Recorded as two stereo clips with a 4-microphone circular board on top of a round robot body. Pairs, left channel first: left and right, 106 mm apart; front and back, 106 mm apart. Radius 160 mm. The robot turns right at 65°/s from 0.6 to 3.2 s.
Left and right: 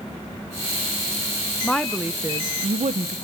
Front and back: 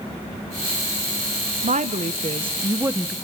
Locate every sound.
1.6 s a woman speaking: 170° left, 0.6 m; by 3.1 s 95° right, 0.6 m